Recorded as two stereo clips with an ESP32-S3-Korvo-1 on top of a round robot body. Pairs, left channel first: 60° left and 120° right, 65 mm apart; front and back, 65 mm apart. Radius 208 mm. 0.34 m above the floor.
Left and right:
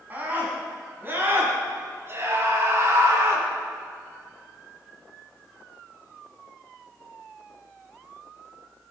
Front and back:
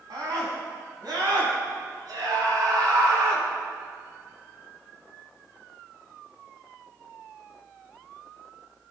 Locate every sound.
0.1 s a scream: 175° left, 6 m; by 3.5 s 160° right, 5 m